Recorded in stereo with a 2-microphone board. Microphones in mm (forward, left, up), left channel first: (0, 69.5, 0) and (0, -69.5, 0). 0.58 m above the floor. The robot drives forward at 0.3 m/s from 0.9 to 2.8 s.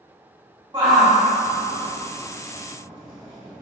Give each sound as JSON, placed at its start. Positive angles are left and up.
{"t": 0.7, "sound": "a shout", "side_deg": -35, "distance_m": 1.5}